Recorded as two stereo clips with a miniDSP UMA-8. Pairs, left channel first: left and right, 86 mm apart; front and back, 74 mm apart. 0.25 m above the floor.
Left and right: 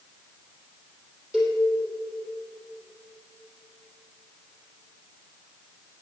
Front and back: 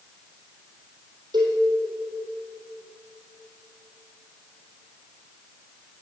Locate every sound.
1.3 s a cowbell: 175° right, 3.5 m